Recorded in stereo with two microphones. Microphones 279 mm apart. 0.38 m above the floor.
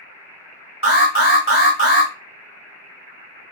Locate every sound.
0.8 s an alarm: 50° left (ahead or behind), 1.4 m